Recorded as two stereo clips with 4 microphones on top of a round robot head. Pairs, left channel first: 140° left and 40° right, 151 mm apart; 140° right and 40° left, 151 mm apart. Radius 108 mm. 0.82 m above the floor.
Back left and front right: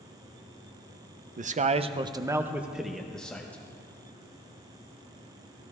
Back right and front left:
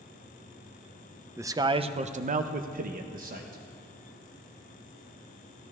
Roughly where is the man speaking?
Ahead right.